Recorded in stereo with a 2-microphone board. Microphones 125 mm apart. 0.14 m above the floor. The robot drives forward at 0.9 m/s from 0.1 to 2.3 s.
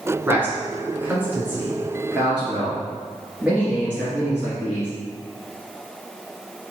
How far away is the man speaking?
About 1.1 m.